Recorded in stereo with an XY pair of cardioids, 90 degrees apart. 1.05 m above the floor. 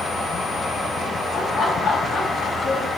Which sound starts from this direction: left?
Laughter, at 1.3 s.